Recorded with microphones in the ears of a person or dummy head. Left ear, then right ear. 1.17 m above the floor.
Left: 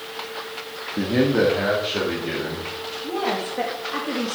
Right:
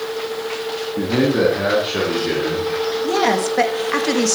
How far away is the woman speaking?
About 1.9 m.